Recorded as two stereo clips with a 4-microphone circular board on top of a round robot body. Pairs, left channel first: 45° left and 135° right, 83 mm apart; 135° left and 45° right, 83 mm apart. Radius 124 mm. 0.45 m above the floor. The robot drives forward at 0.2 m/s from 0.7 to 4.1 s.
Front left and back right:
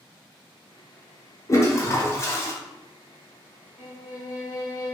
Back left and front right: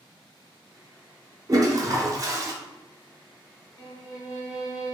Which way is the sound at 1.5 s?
5° right.